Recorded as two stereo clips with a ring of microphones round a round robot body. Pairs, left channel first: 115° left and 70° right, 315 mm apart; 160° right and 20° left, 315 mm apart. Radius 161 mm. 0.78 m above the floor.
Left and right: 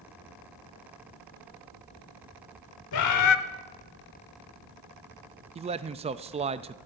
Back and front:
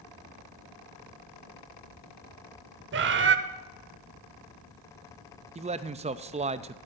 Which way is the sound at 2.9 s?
80° left.